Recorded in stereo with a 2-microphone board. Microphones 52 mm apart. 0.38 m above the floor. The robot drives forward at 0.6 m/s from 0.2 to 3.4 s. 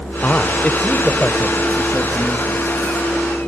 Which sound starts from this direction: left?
A man speaking, at 0.2 s.